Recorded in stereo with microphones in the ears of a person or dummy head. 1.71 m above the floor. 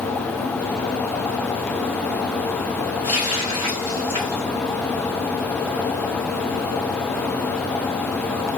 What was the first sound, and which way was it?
A running tap, 20° right (ahead or behind).